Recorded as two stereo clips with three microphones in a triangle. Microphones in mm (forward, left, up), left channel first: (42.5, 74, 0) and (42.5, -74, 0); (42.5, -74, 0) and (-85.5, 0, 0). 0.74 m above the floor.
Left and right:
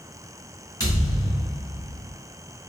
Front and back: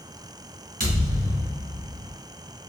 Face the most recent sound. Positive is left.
turn(degrees=150)